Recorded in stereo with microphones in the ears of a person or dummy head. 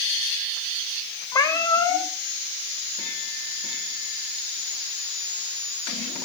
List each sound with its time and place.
1.3 s a cat meowing: 10° left (ahead or behind), 0.8 m